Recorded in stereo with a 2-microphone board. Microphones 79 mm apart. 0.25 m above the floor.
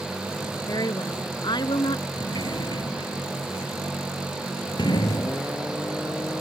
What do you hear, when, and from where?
0.7 s a woman speaking: 50° left (ahead or behind); by 2.1 s 70° left (ahead or behind)
2.2 s a sliding door: 70° left (ahead or behind)